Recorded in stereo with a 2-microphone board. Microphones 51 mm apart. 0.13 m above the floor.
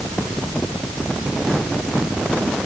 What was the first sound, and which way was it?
Only background noise.